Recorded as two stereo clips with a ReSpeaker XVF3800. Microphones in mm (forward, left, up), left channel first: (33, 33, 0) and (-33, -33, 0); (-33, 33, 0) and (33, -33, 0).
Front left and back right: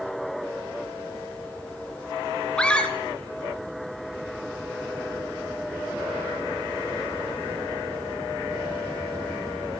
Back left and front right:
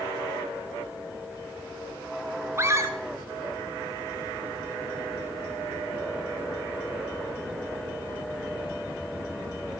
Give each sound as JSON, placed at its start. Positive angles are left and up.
{"t": 2.6, "sound": "a scream", "azimuth_deg": -25, "distance_m": 1.5}